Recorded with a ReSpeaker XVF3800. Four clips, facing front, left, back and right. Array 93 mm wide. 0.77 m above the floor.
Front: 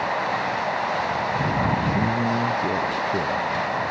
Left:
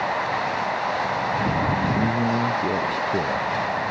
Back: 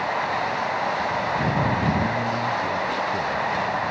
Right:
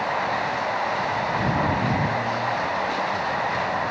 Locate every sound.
1.9 s a man speaking: 60° left